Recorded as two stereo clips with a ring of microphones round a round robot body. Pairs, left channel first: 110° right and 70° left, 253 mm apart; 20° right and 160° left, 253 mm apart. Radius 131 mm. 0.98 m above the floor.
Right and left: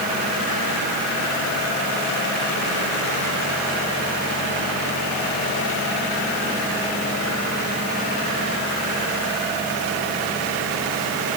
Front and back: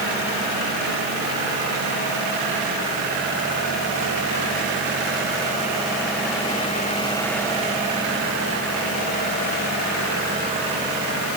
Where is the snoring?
I don't hear snoring.